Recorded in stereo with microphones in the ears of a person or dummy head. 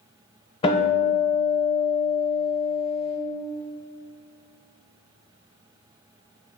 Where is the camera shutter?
No camera shutter in this recording.